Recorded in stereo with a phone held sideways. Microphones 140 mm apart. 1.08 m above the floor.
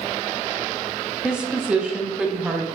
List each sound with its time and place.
1.2 s a woman speaking: 5° right (ahead or behind), 0.6 m